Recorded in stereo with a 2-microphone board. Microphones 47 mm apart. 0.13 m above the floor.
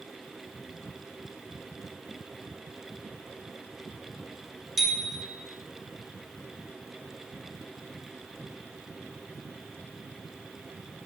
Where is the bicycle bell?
Centre (ahead or behind), 3.5 m.